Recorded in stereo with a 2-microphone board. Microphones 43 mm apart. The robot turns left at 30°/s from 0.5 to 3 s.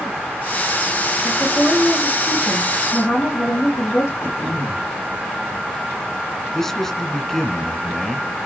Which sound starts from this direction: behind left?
A woman speaking, at 1.2 s.